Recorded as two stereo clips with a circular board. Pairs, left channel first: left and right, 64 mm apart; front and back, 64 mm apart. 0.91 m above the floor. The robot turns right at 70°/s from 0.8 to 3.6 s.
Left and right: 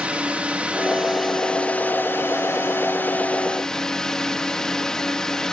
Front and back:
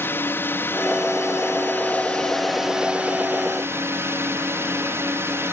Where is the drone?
30° right; by 5.5 s 165° left.